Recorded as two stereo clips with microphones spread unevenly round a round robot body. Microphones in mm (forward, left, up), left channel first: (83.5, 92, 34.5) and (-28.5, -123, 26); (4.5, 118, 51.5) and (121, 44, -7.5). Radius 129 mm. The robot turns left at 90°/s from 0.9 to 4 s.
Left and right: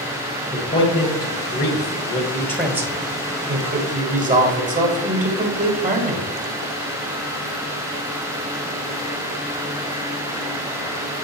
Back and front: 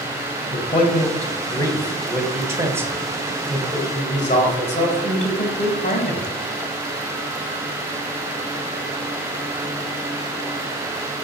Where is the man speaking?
125° left, 1.5 m; by 6.3 s 150° right, 1.5 m.